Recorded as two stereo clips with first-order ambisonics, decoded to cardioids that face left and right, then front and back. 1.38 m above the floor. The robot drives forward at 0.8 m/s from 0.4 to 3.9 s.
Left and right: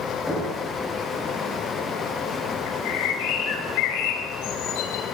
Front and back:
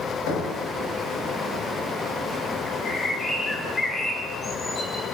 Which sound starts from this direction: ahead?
Knocking, at 0.3 s.